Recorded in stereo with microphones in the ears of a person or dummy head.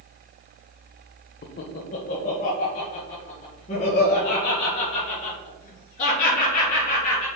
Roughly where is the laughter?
Left.